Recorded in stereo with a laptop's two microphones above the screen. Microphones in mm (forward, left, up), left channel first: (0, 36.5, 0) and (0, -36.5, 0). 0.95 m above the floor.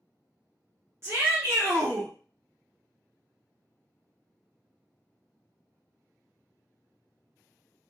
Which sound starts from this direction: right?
A shout, at 1.0 s.